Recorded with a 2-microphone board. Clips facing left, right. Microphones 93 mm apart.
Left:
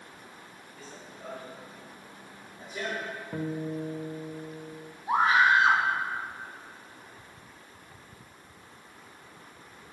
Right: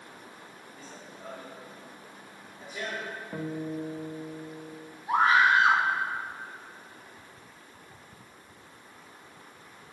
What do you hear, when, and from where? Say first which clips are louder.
0.8 s running footsteps: left 1 dB; 5° left (ahead or behind), 4 m; by 3.2 s 40° left (ahead or behind), 4 m
3.3 s a guitar: left 1 dB; 5° left (ahead or behind), 0.6 m
5.1 s a scream: even; 30° left (ahead or behind), 3 m